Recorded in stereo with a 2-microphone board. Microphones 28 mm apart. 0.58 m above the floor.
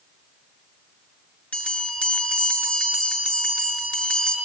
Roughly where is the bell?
Left.